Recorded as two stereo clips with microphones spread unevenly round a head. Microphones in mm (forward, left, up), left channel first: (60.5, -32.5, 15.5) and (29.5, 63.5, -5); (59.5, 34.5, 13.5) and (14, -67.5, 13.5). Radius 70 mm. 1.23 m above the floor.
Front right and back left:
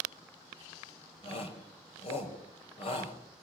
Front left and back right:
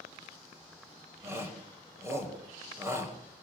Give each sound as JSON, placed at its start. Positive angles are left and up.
{"t": 1.2, "sound": "a shout", "azimuth_deg": -50, "distance_m": 6.5}